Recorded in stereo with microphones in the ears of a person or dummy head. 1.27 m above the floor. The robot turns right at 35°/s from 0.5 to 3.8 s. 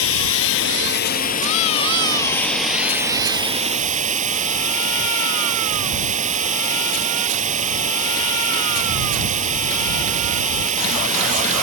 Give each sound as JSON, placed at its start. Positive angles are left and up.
{"t": 0.0, "sound": "running water", "azimuth_deg": 100}